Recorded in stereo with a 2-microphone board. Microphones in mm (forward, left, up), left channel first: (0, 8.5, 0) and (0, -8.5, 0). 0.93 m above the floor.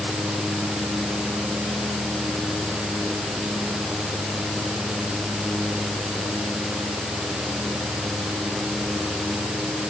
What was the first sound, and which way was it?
Only background noise.